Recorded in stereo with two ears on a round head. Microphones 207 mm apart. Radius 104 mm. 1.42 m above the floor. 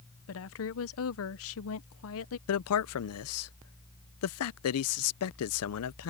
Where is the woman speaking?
65° left (ahead or behind).